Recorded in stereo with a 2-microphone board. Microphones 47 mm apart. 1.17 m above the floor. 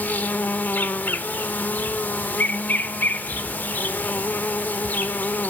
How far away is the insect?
About 1.0 m.